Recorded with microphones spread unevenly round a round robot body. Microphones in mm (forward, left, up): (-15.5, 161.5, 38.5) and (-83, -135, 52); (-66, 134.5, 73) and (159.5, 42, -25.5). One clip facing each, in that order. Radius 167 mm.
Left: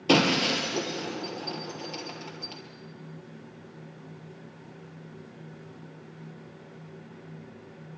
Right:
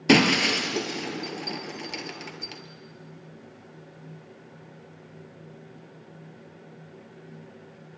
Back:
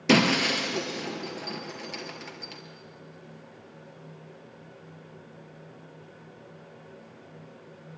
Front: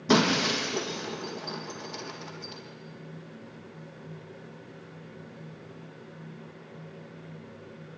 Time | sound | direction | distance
0.1 | breaking glass | 160° right | 3 m